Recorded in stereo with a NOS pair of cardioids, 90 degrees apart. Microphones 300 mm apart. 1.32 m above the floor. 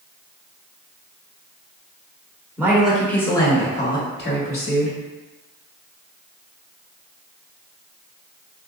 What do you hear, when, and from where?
2.6 s a woman speaking: 10° right, 1.2 m; by 5.0 s 55° left, 1.3 m